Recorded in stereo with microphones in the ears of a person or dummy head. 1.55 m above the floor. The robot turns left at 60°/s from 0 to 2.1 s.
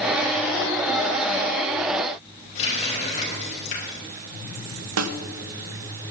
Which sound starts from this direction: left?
A running tap, at 2.5 s.